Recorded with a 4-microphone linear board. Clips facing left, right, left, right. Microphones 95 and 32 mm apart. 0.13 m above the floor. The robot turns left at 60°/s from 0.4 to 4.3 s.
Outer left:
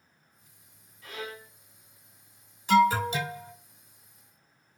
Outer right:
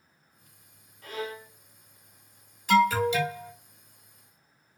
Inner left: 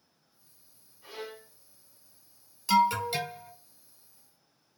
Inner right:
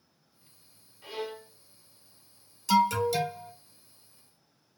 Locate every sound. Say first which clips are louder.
1.0 s a violin: outer right 4 dB, inner right 5 dB; 45° right (ahead or behind), 0.8 m; by 1.5 s 20° right (ahead or behind), 0.8 m
2.7 s an alarm: even, even; 150° left, 1.5 m; by 3.5 s 100° left, 1.5 m